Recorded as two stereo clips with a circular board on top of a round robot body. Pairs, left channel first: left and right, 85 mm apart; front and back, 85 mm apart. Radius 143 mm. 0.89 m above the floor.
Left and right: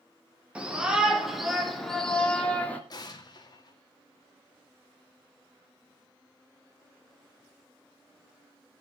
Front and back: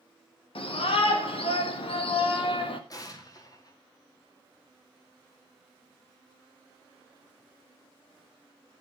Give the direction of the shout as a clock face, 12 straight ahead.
12 o'clock.